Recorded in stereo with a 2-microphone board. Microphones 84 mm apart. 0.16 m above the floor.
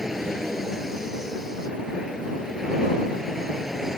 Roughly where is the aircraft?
Centre.